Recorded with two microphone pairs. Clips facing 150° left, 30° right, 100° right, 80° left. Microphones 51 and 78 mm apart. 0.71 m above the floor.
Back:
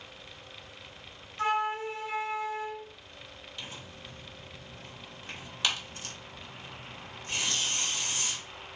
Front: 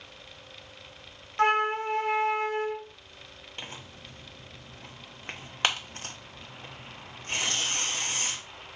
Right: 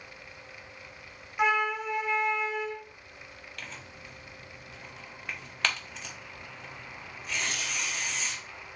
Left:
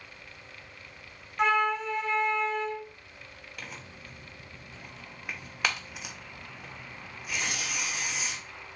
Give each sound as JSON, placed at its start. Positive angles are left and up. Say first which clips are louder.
{"t": 1.4, "sound": "a flute", "louder": "front 5 dB, left 1 dB", "azimuth_deg": -15, "distance_m": 0.6}
{"t": 3.6, "sound": "tearing paper", "louder": "front 2 dB, left 1 dB", "azimuth_deg": 5, "distance_m": 0.9}